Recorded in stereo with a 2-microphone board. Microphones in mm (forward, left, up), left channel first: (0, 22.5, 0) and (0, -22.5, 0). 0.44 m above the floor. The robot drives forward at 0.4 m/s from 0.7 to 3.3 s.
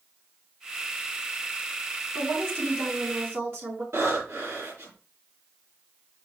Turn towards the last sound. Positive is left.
turn(degrees=-75)  # may be behind; listen again after turning